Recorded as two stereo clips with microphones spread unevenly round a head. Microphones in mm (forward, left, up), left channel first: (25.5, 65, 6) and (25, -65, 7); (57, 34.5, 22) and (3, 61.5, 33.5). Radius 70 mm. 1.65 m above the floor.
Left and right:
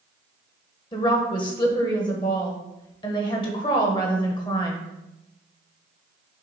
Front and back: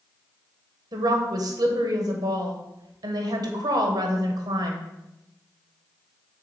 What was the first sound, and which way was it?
A woman speaking, 150° left.